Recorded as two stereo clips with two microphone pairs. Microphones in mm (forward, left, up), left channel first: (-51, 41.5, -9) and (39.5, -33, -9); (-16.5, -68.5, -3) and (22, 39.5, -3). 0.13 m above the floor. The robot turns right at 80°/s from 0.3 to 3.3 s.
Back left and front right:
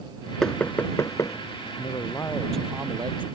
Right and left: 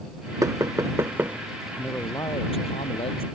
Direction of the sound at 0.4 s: 60° left.